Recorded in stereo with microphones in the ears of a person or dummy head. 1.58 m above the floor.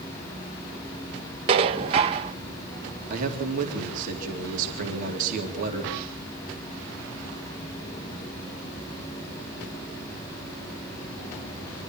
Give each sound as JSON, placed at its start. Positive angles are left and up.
{"t": 1.5, "sound": "dishes clattering", "side_deg": -20, "distance_m": 0.5}
{"t": 3.1, "sound": "a man speaking", "side_deg": -50, "distance_m": 3.5}